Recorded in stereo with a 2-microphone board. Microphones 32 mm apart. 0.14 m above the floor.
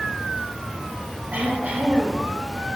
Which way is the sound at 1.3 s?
55° right (ahead or behind).